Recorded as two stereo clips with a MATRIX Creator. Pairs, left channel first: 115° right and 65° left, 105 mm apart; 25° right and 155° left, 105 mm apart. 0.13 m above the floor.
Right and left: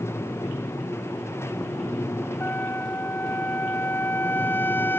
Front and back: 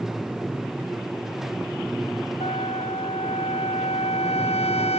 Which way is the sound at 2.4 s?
40° right.